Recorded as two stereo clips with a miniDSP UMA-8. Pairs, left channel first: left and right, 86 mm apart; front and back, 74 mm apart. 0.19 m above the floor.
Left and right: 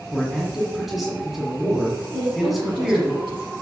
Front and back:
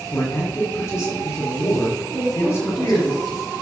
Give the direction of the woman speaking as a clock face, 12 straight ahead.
3 o'clock.